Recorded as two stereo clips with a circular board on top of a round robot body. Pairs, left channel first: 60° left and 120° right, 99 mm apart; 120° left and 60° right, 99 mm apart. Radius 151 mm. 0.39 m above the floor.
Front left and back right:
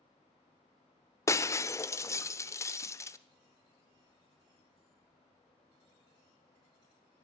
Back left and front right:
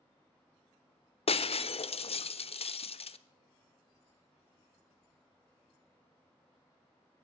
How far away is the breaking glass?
About 0.7 m.